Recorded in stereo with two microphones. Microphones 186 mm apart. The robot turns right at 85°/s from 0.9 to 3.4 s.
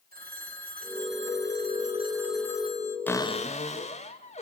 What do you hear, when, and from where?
0.1 s a phone ringing: 125° right, 3 m; by 3.0 s 50° left, 3 m
3.1 s a cupboard door: 10° left (ahead or behind), 1.7 m; by 4.4 s 35° left (ahead or behind), 1.7 m